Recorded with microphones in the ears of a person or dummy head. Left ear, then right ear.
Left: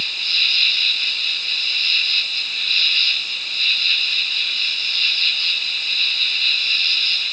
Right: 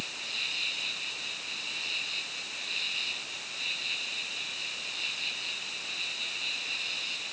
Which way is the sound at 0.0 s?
65° left (ahead or behind).